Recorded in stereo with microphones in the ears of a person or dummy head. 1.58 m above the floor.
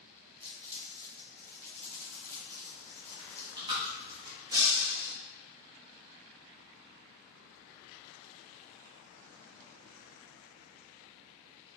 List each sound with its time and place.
0.4 s crumpling: 15° left (ahead or behind), 1.1 m
3.2 s chewing: 30° right (ahead or behind), 1.7 m
4.5 s breaking glass: 25° right (ahead or behind), 1.9 m